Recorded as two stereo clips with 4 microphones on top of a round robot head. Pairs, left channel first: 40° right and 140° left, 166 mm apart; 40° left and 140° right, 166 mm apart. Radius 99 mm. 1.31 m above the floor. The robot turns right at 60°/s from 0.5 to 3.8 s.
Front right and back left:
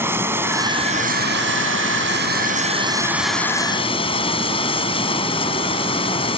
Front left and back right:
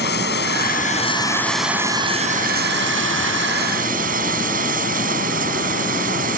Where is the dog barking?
No dog barking in this recording.